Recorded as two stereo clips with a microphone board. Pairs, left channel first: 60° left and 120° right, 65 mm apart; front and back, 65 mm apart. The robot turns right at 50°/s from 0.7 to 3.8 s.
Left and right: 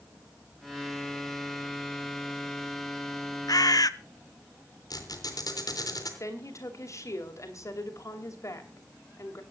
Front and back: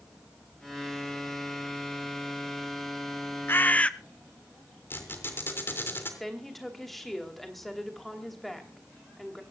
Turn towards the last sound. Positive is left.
turn(degrees=90)